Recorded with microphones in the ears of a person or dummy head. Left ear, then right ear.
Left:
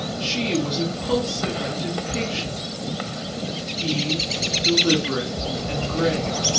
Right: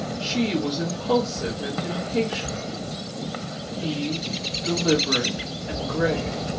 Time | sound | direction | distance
0.2 | a woman speaking | 10° right (ahead or behind) | 1.2 m